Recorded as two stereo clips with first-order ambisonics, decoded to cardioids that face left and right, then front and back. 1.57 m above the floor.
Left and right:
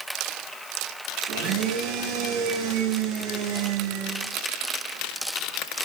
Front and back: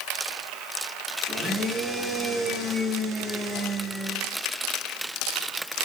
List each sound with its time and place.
1.3 s a blender: 100° right, 9.5 m